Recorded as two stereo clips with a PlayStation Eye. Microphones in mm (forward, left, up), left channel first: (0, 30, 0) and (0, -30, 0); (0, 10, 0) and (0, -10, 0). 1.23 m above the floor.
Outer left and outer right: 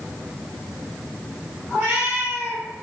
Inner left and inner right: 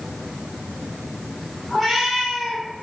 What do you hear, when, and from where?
1.7 s a cat meowing: 25° right (ahead or behind), 2 m